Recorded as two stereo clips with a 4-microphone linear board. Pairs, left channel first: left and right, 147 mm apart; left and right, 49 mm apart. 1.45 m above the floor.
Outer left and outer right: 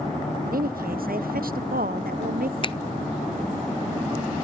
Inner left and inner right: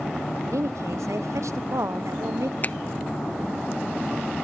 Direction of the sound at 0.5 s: 75° right (ahead or behind).